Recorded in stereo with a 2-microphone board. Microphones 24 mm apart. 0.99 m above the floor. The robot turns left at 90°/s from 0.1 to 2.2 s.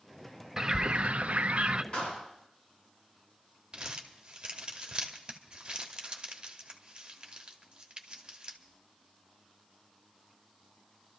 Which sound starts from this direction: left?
A clap, at 1.9 s.